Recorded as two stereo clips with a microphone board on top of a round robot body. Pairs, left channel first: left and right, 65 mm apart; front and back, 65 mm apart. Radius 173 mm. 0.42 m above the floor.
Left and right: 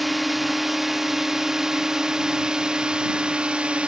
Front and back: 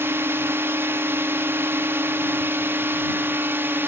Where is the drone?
Straight behind; by 3.9 s 155° right.